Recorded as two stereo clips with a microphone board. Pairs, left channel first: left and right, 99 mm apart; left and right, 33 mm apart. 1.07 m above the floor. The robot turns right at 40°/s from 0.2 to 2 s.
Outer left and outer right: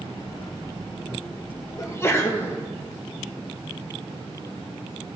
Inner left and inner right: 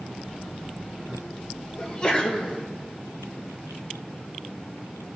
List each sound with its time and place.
1.8 s a sneeze: 30° left (ahead or behind), 1.0 m; by 2.6 s 25° left (ahead or behind), 1.0 m